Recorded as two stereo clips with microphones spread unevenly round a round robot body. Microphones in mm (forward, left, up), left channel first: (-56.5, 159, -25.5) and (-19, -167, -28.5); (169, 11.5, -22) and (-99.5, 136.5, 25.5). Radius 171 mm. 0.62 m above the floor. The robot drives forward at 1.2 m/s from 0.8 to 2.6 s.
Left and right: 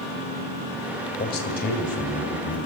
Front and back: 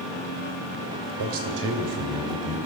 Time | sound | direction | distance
1.2 | a man speaking | 155° left | 2.5 m